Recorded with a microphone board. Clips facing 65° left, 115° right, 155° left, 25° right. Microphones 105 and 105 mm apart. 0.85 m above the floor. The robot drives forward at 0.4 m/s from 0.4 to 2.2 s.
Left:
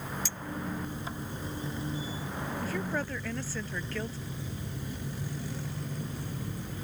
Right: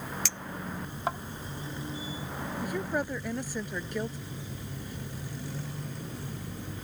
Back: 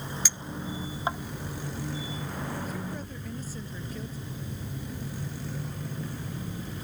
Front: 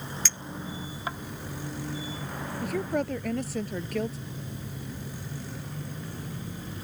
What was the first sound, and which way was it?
A clink, 125° right.